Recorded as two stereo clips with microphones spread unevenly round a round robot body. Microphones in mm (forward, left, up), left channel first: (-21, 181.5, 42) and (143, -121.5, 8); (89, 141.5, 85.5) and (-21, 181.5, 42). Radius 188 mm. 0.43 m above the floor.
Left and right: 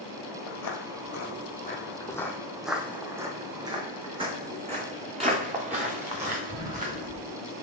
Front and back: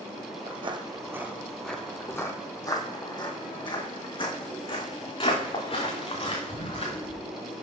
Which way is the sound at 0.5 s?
110° left.